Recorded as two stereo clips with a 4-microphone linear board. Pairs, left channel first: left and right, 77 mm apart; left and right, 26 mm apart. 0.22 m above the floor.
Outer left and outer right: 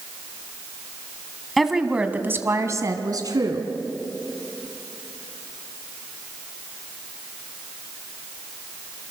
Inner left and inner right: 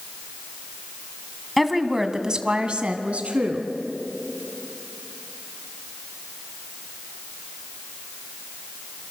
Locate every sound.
1.6 s a woman speaking: centre (ahead or behind), 1.8 m; by 3.7 s 60° right (ahead or behind), 2.5 m